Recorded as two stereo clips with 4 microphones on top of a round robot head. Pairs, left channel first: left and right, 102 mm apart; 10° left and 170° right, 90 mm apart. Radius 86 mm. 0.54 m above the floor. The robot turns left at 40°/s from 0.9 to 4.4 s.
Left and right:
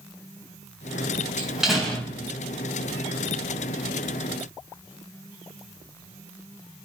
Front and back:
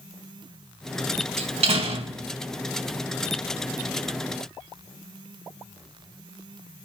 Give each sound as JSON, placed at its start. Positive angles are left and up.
{"t": 1.4, "sound": "a door slam", "azimuth_deg": -165, "distance_m": 2.5}